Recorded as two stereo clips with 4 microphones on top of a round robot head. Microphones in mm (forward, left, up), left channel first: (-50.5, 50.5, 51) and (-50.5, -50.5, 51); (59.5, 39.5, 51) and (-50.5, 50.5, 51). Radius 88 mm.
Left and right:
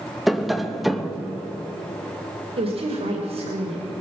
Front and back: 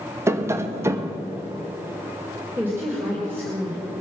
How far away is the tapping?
About 1.0 m.